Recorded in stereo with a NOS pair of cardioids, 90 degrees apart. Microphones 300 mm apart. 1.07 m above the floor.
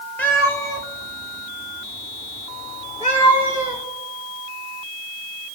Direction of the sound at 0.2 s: 5° left.